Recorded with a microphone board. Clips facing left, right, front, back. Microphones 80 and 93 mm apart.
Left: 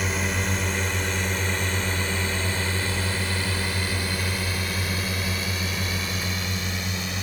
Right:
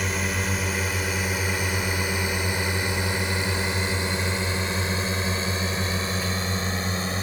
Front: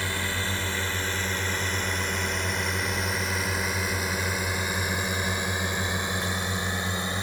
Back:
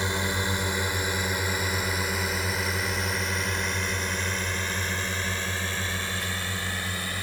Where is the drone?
Straight behind; by 7.2 s 55° right.